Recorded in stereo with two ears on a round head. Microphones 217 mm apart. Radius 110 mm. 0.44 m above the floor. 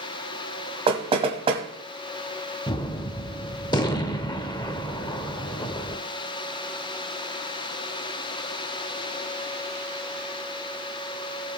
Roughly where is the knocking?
Right.